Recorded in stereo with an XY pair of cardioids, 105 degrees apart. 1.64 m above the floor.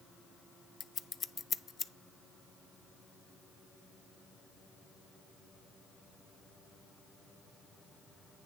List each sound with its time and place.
0.8 s scissors: 40° left, 0.6 m